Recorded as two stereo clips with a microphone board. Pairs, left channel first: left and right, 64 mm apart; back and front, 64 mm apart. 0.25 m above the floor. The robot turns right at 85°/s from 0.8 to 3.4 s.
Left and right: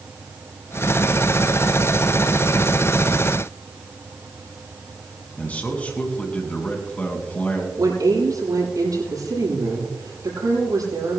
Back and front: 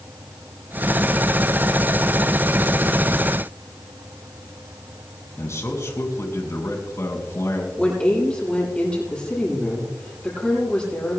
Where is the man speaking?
155° left, 3 m.